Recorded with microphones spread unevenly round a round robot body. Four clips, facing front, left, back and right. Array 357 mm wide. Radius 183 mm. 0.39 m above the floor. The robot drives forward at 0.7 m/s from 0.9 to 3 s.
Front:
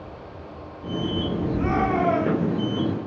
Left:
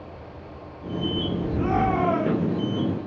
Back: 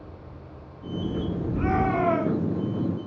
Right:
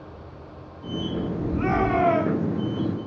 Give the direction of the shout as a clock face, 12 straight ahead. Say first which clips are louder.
Right 1 dB, front 1 dB; 4 o'clock.